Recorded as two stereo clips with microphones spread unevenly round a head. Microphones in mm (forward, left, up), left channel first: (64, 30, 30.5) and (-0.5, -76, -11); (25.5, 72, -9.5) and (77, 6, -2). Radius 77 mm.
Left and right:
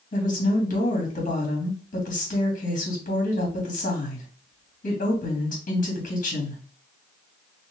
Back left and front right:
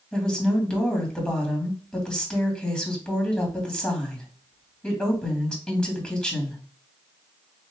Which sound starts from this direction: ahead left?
A woman speaking, at 0.1 s.